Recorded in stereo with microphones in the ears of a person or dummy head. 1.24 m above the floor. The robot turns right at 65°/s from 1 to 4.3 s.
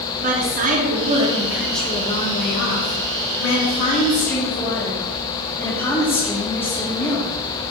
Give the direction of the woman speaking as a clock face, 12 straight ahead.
2 o'clock.